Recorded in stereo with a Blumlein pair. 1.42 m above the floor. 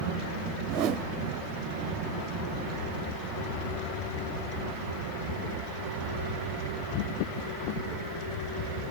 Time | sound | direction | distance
0.7 | a whoosh | 35° right | 0.7 m